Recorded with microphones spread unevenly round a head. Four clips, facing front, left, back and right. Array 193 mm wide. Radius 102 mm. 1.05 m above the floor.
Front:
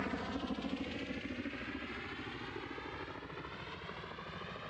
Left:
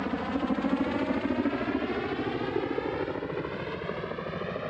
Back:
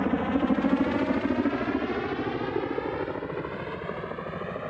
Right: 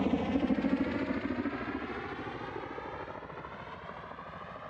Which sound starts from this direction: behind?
A helicopter, at 0.0 s.